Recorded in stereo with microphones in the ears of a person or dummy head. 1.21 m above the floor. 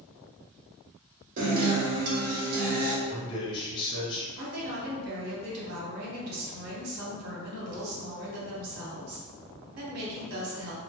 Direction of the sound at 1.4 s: 50° right (ahead or behind).